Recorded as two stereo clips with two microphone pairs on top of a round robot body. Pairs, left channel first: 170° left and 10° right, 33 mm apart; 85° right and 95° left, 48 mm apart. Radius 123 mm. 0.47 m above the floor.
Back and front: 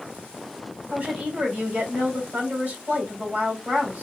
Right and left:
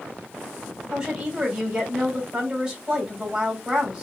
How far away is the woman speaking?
About 2 m.